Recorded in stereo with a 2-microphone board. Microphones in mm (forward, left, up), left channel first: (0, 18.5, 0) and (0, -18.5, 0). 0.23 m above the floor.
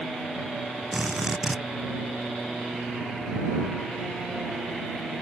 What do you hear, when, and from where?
0.9 s a drill: 15° right (ahead or behind)